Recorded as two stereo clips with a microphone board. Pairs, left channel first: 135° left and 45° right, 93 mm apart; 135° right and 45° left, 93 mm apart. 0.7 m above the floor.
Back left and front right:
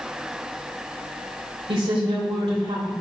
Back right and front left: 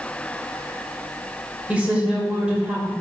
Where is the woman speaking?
30° right, 2.5 m.